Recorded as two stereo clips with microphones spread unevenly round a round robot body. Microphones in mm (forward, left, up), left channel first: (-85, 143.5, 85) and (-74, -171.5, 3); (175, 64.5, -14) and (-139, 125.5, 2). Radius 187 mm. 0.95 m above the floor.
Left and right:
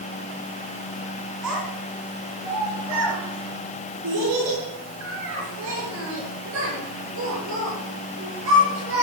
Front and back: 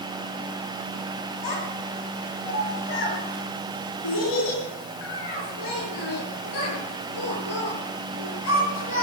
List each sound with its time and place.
1.4 s a child speaking: 40° right, 5.5 m; by 9.0 s 25° right, 10.5 m